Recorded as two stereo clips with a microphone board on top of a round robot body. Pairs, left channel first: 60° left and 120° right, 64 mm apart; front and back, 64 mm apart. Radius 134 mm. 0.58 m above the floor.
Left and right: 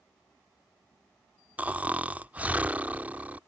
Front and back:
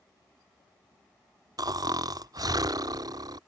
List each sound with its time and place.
1.6 s snoring: 170° left